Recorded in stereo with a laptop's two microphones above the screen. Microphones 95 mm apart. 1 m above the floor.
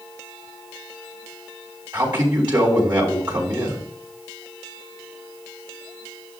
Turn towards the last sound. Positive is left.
turn(degrees=-45)  # may be behind; listen again after turning